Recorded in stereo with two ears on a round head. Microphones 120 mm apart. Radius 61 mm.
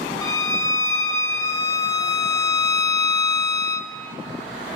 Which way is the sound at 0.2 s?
25° left (ahead or behind).